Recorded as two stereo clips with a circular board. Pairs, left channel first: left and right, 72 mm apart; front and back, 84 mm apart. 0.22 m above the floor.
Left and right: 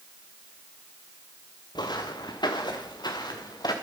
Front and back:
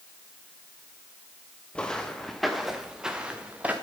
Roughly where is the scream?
I don't hear a scream.